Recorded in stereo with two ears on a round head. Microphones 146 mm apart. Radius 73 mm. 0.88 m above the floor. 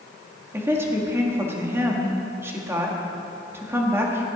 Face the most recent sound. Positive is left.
turn(degrees=-15)  # may be behind; listen again after turning